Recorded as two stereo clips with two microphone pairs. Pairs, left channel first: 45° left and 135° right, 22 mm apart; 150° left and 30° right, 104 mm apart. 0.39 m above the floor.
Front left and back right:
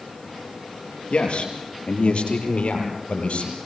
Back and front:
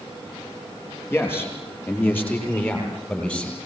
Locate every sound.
1.1 s a man speaking: 80° left, 7 m; by 3.6 s 70° left, 8.5 m